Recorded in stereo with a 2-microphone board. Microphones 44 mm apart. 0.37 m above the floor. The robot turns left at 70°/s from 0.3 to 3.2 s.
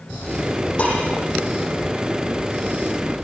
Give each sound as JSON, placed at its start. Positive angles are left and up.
{"t": 0.8, "sound": "dishes clattering", "side_deg": 30, "distance_m": 10.0}